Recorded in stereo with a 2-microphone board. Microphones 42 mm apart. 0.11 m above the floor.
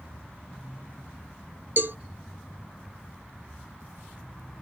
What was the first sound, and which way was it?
A cowbell, 55° right (ahead or behind).